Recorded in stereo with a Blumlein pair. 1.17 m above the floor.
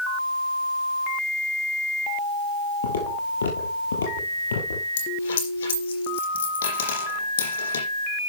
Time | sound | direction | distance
2.8 | footsteps | 70° left | 6 m
5.0 | a dropped coin | 65° left | 5 m